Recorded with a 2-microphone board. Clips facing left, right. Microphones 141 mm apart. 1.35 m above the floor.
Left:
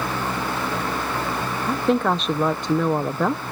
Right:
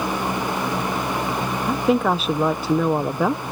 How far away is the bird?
I don't hear a bird.